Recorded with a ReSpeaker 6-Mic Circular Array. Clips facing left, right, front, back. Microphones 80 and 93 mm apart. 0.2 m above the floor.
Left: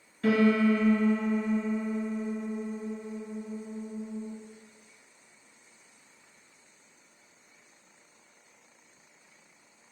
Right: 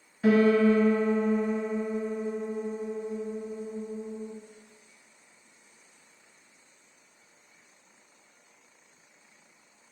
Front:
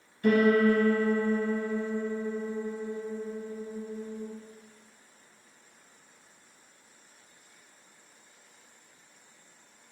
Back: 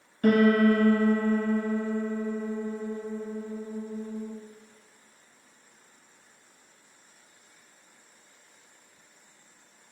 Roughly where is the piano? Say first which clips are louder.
Right 3 dB, back 2 dB; behind.